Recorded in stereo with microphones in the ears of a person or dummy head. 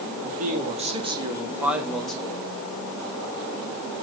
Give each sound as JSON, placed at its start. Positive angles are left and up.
{"t": 0.2, "sound": "a man speaking", "side_deg": -45, "distance_m": 3.5}